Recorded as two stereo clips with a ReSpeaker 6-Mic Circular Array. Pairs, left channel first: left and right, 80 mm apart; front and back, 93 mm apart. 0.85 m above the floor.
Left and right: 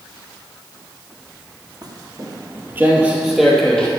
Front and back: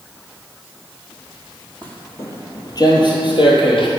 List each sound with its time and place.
1.8 s footsteps: 70° right, 1.5 m; by 3.9 s 10° left, 1.6 m